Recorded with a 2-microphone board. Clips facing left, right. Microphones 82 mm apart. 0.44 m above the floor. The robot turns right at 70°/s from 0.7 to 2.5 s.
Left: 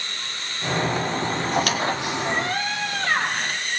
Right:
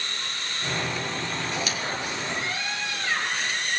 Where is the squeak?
50° left (ahead or behind), 2 m; by 3.6 s 55° left (ahead or behind), 2 m.